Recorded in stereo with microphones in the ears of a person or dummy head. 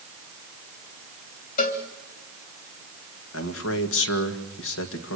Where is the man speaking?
70° left (ahead or behind), 1.9 m.